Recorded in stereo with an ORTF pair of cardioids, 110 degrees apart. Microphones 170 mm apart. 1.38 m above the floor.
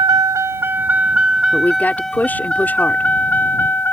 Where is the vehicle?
25° right; by 3.9 s 15° left.